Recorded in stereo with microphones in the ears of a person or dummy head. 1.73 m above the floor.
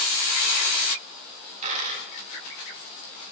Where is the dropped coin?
40° right (ahead or behind), 5.5 m.